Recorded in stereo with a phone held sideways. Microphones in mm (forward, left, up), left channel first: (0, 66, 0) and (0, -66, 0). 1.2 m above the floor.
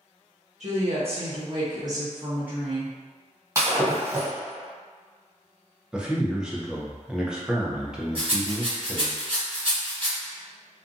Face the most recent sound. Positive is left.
turn(degrees=-40)  # may be behind; listen again after turning